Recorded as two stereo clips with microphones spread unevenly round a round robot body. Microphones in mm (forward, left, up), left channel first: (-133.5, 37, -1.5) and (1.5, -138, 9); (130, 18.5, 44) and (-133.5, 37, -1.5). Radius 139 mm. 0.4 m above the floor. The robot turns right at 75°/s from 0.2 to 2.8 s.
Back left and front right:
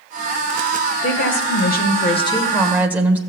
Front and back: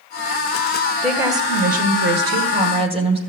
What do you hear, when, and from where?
1.0 s a woman speaking: 90° left, 1.7 m; by 3.2 s 135° right, 1.7 m